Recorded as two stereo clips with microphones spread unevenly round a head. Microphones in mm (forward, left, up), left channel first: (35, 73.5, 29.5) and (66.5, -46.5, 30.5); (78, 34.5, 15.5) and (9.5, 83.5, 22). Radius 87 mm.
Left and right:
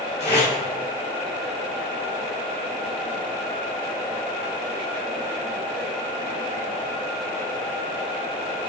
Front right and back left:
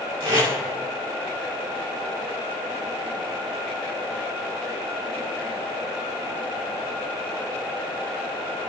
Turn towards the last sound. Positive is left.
turn(degrees=160)